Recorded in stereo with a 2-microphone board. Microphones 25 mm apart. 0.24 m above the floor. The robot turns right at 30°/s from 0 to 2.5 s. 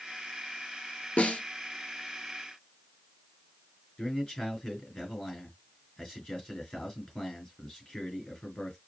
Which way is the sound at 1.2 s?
70° left (ahead or behind).